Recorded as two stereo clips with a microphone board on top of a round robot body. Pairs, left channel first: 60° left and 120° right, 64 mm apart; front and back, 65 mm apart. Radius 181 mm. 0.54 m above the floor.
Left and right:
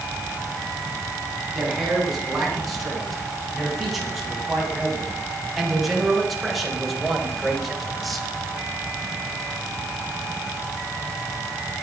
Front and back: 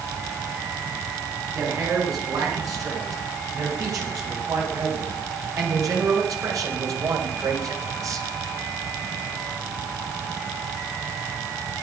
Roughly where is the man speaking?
Behind left.